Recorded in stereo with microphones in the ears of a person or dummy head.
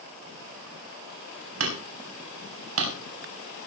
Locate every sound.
1.6 s hammering: 80° right, 5.5 m